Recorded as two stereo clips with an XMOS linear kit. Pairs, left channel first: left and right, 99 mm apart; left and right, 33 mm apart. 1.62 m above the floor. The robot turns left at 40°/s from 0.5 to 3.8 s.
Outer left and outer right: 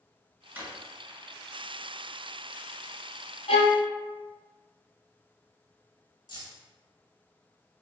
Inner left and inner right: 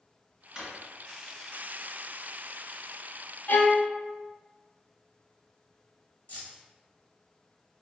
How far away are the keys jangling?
About 1.2 m.